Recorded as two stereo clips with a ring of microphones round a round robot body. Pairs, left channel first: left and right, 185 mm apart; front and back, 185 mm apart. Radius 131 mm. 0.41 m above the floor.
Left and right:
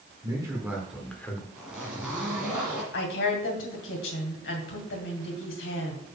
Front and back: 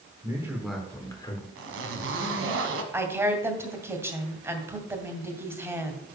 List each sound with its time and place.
0.2 s a man speaking: 130° right, 1.3 m; by 1.4 s 30° left, 1.3 m
1.6 s a zipper: 175° right, 1.2 m
2.9 s a woman speaking: 105° left, 1.9 m